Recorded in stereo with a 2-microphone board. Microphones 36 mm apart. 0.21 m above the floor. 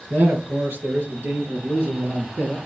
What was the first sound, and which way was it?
A man speaking, 65° right (ahead or behind).